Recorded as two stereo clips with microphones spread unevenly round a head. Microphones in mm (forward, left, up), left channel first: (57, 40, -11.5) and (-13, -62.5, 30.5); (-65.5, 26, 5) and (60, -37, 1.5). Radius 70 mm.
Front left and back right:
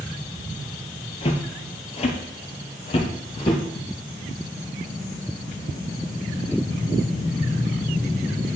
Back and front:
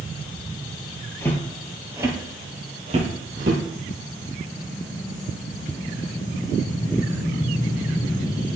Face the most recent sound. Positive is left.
turn(degrees=-5)